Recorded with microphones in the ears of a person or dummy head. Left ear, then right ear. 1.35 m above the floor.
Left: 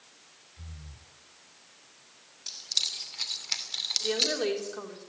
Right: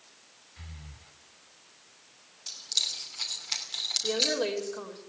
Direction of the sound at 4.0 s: 5° left (ahead or behind).